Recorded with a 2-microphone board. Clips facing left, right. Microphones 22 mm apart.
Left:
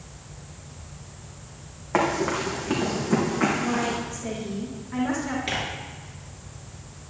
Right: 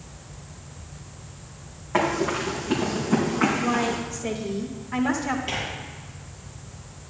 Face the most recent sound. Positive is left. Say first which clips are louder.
# left 1 dB
turn(degrees=80)